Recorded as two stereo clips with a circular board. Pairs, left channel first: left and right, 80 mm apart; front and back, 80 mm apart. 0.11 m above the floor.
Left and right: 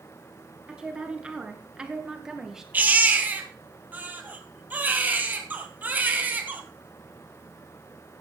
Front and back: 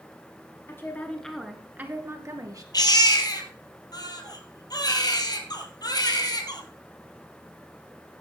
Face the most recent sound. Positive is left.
turn(degrees=-25)